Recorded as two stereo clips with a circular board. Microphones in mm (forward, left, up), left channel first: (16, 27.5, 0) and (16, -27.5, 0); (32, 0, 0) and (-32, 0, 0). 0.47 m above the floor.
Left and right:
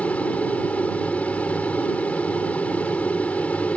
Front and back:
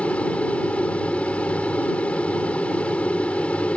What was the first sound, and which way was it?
An aircraft, 55° left.